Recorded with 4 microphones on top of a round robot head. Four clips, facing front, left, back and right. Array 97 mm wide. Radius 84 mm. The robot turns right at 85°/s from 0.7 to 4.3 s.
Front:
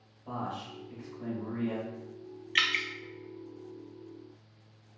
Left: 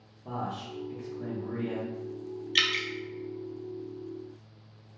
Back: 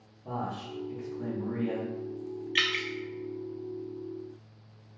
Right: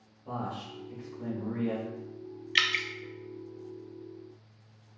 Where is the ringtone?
No ringtone in this recording.